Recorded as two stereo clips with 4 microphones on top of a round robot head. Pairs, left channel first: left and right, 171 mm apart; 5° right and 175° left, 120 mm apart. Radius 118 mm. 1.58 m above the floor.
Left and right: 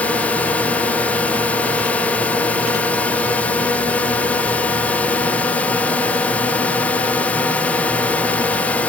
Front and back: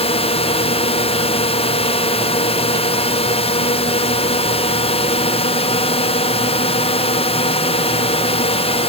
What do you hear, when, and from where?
0.0 s a drone: 10° left